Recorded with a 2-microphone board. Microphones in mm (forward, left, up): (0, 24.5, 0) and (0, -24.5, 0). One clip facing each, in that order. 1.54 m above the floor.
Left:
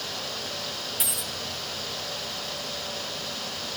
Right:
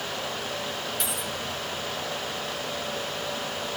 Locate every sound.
1.0 s a dropped coin: 5° left (ahead or behind), 1.1 m